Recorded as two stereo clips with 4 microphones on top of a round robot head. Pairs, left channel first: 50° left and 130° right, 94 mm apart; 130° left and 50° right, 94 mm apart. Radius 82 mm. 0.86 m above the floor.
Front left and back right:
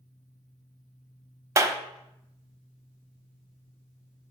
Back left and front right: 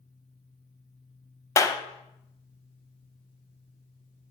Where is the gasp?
I don't hear a gasp.